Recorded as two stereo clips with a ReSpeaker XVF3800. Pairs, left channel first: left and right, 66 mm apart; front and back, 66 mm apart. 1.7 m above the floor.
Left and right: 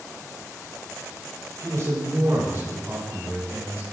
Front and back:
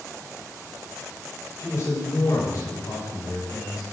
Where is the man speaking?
50° right, 7 m; by 3.8 s 35° right, 4.5 m.